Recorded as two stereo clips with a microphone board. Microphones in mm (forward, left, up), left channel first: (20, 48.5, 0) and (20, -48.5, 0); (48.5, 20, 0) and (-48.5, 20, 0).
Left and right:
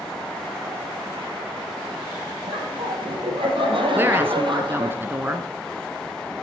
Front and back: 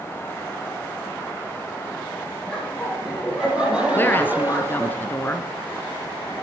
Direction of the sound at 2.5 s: 85° right.